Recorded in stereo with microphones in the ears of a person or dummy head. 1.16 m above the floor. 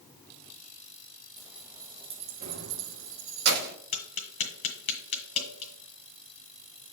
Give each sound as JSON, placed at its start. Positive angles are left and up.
{"t": 1.4, "sound": "keys jangling", "side_deg": 0, "distance_m": 1.1}
{"t": 3.9, "sound": "tapping", "side_deg": 40, "distance_m": 1.7}